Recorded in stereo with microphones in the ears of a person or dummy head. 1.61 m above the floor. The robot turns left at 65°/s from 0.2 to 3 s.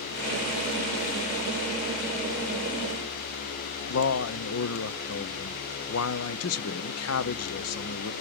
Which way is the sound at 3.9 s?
80° left.